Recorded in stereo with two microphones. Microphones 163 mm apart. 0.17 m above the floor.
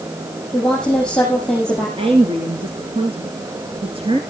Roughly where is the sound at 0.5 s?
Centre.